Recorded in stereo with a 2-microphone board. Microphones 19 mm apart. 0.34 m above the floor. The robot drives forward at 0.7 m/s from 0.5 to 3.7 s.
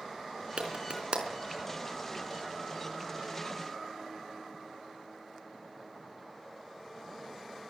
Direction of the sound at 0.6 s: 50° right (ahead or behind).